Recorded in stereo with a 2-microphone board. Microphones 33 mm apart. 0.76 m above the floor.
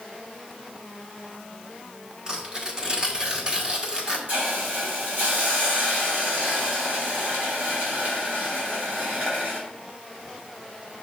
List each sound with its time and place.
2.3 s tearing paper: 30° right (ahead or behind), 1.3 m
4.3 s a hiss: 60° right (ahead or behind), 3 m